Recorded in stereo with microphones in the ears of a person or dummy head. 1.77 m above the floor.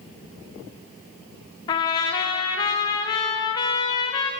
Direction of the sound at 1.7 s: 25° left (ahead or behind).